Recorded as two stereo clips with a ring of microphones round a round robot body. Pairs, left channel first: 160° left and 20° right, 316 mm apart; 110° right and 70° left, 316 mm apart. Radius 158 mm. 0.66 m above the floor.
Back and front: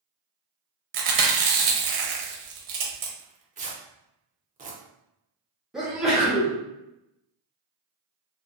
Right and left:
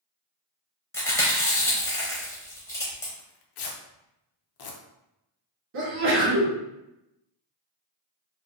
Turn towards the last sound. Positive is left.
turn(degrees=65)